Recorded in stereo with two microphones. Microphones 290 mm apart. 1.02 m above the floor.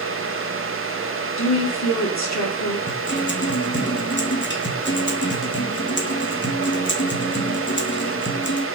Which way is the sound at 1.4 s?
65° left (ahead or behind).